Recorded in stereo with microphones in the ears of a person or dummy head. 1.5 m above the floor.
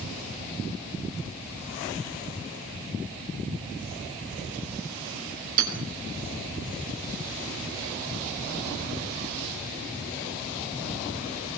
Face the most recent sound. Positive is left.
turn(degrees=-50)  # may be behind; listen again after turning